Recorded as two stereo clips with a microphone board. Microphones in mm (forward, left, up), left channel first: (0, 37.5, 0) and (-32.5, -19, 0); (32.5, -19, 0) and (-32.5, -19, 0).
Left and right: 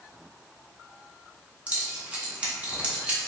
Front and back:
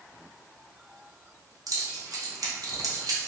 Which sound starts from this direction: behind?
Keys jangling, at 1.7 s.